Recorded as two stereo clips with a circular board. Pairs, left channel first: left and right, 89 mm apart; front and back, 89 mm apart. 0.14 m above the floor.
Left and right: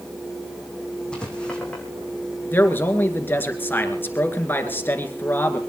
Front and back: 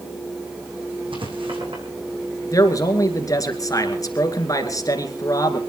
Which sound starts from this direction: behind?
Writing, at 1.1 s.